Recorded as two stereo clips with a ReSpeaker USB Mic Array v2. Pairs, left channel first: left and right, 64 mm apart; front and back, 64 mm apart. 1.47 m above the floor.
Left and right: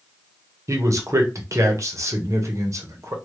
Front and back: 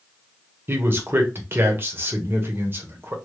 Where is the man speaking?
125° right, 0.9 m.